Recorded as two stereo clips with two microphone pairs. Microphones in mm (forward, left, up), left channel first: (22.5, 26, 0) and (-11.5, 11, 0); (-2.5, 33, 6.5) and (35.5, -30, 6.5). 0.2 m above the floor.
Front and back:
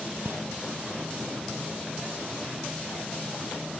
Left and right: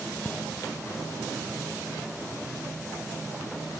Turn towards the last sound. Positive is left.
turn(degrees=-170)